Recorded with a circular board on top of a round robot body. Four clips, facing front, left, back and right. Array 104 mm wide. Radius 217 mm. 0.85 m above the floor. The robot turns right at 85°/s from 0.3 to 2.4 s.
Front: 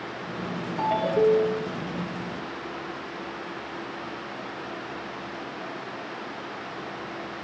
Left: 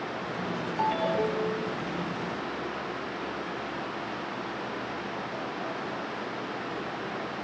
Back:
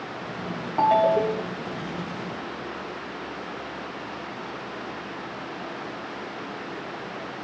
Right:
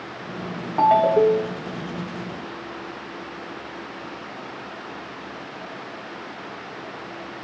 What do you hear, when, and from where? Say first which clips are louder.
0.8 s a ringtone: right 12 dB, back 3 dB; 120° right, 1.2 m; by 1.7 s 45° right, 1.2 m